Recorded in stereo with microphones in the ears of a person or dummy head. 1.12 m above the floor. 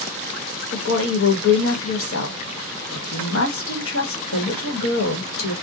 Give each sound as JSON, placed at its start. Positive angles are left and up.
{"t": 0.7, "sound": "a woman speaking", "side_deg": 60, "distance_m": 1.2}